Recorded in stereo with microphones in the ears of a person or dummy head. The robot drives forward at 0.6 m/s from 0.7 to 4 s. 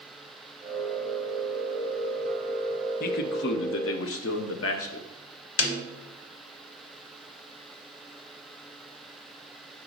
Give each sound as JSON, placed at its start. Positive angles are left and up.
{"t": 3.0, "sound": "a man speaking", "side_deg": 55, "distance_m": 1.0}
{"t": 5.6, "sound": "a snare drum", "side_deg": 85, "distance_m": 1.4}